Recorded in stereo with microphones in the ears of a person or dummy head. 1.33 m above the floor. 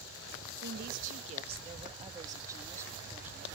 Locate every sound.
0.6 s a woman speaking: 55° right (ahead or behind); by 3.5 s 10° right (ahead or behind)